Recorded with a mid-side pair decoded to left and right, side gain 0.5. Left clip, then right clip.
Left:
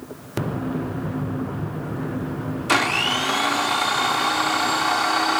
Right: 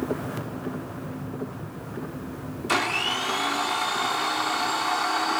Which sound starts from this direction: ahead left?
A blender, at 2.7 s.